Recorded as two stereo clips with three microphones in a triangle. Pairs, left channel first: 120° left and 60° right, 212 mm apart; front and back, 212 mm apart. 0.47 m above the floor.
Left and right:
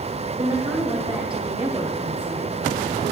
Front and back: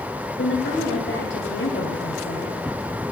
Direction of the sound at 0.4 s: Straight ahead.